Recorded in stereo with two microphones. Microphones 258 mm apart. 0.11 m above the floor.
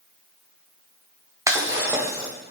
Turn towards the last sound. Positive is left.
turn(degrees=-10)  # may be behind; listen again after turning